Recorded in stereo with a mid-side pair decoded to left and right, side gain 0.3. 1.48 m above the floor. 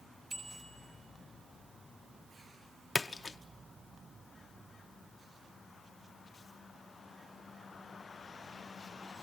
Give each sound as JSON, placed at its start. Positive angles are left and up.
{"t": 0.3, "sound": "a bicycle bell", "azimuth_deg": -50, "distance_m": 7.5}
{"t": 3.0, "sound": "a splash", "azimuth_deg": 40, "distance_m": 0.8}